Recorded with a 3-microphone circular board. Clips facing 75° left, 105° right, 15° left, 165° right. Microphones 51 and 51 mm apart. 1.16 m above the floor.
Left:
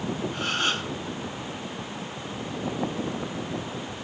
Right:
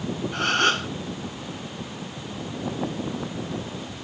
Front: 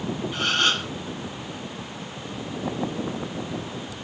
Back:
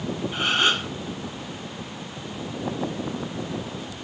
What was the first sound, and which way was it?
A gasp, 90° right.